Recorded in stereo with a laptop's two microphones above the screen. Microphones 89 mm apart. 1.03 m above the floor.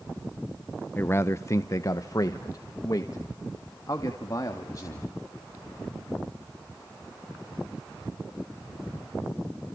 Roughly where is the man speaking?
Left.